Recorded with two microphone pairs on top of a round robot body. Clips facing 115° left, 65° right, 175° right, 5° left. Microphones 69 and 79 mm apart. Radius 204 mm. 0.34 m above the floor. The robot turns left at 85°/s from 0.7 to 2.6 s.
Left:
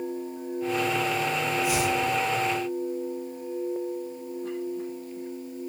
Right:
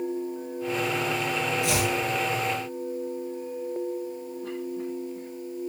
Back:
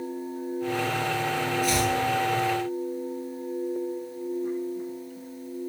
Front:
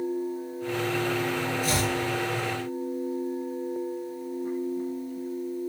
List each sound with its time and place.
1.6 s chopping: 45° right, 9 m; by 1.9 s 70° right, 9 m